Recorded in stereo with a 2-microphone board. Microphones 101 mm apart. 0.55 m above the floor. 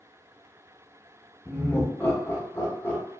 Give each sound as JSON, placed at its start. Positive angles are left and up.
{"t": 1.4, "sound": "laughter", "side_deg": 20, "distance_m": 0.6}